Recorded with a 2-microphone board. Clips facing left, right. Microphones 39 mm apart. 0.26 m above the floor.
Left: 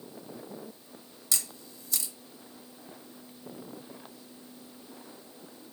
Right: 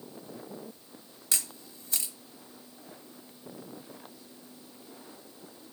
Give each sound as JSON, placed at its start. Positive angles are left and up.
{"t": 1.3, "sound": "a camera shutter", "side_deg": -40, "distance_m": 1.0}